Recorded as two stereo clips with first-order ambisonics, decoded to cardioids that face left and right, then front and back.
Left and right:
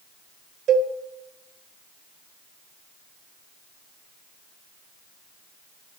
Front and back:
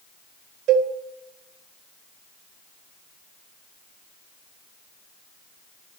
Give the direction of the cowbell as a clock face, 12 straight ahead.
5 o'clock.